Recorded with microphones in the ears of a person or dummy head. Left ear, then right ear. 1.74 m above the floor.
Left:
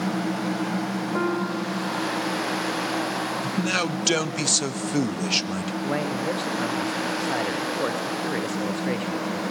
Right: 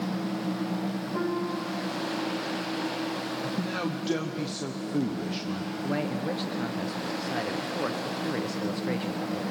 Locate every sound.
1.1 s a piano: 50° left (ahead or behind), 1.5 m
3.4 s a man speaking: 65° left (ahead or behind), 1.0 m
5.8 s a man speaking: 20° left (ahead or behind), 0.9 m